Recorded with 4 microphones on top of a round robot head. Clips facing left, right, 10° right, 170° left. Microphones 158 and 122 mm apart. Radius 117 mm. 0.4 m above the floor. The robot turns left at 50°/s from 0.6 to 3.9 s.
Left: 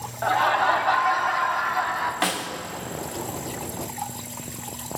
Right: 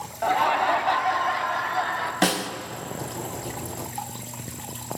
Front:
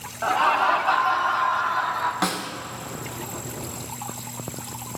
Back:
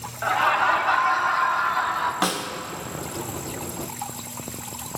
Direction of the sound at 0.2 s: 35° right.